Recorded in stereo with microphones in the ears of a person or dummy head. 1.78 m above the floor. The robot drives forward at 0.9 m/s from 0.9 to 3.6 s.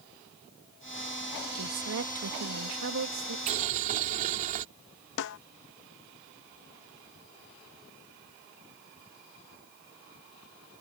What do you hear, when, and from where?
1.6 s a woman speaking: 80° right; by 3.4 s 75° right (ahead or behind)
3.5 s boiling: 45° right (ahead or behind)
5.2 s a snare drum: 65° left (ahead or behind)